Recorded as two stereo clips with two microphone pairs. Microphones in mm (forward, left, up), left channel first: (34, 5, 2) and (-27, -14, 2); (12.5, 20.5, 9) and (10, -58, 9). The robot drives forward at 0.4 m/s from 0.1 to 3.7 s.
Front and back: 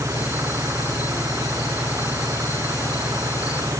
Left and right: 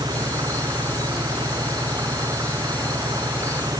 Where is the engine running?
120° right; by 3.8 s 125° right.